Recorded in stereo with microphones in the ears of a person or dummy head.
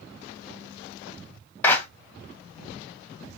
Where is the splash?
No splash in this recording.